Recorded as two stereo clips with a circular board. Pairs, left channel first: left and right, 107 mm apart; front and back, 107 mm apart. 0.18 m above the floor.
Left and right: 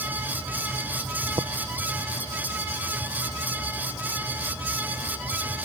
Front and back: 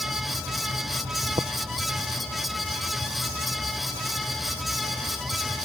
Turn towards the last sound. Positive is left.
turn(degrees=-135)